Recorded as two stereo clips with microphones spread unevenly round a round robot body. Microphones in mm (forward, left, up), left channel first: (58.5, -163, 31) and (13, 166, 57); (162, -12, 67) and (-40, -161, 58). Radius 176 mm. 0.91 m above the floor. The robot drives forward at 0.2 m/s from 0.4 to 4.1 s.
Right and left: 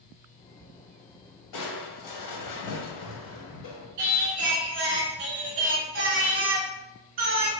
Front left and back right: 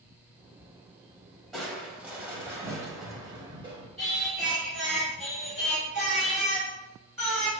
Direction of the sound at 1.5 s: 55° right.